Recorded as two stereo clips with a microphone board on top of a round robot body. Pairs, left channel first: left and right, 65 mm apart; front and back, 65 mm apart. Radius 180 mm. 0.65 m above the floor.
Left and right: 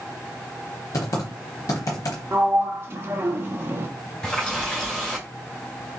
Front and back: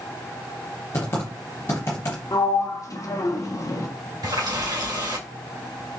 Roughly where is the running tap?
Behind.